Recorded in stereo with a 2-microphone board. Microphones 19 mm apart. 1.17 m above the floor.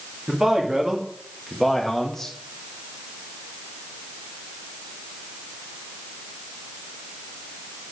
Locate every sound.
0.3 s a man speaking: 40° right (ahead or behind), 2.5 m; by 2.3 s 20° left (ahead or behind), 1.8 m